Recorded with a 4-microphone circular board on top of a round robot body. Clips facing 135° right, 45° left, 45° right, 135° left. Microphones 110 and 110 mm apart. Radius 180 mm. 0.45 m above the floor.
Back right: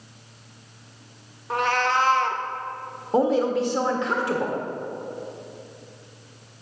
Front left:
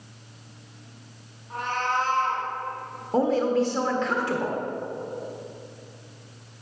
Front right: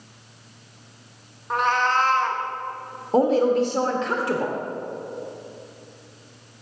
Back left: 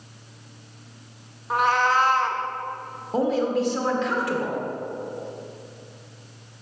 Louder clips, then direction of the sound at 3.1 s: Back right 1 dB, front right 4 dB; 65° right.